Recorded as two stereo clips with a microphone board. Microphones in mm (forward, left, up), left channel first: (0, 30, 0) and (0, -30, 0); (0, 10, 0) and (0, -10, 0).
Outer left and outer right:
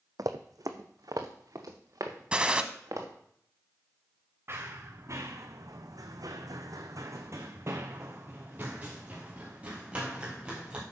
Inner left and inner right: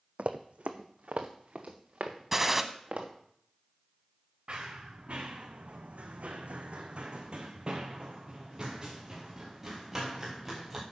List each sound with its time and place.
0.2 s running footsteps: 75° right (ahead or behind), 0.9 m; by 3.1 s 55° right (ahead or behind), 2.5 m
2.3 s a gunshot: 15° right (ahead or behind), 0.8 m
4.5 s running footsteps: 40° right (ahead or behind), 2 m; by 10.8 s 15° right (ahead or behind), 4.5 m